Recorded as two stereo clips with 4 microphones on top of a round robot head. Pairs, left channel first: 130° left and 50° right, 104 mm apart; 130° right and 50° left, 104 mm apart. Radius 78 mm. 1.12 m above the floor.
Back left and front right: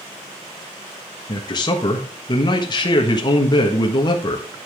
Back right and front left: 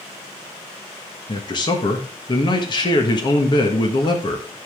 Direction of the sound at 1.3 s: Straight behind.